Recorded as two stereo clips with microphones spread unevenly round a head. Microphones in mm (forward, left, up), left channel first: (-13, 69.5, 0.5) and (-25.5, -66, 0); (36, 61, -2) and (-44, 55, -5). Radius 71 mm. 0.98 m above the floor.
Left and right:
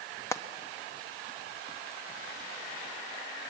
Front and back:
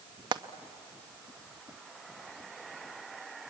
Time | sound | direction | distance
0.3 | frying | 155° left | 0.9 m